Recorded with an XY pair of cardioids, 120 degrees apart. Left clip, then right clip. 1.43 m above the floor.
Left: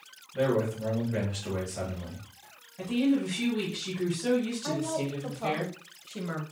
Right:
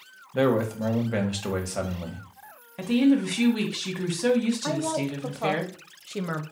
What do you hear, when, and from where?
0.3 s a man speaking: 65° right, 1.3 m
2.8 s a woman speaking: 65° right, 1.3 m
4.6 s a woman speaking: 40° right, 0.7 m